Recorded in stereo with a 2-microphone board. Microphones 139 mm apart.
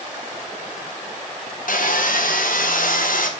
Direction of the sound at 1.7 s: 75° left (ahead or behind).